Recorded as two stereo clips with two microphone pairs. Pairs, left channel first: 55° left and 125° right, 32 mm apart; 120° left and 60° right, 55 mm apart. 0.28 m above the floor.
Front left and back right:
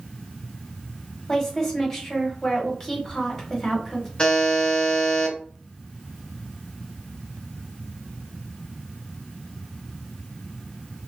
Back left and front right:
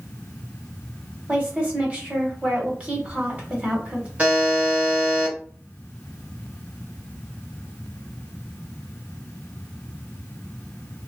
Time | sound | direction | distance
1.3 | a woman speaking | 10° right | 1.2 m
4.2 | a buzzer | straight ahead | 1.4 m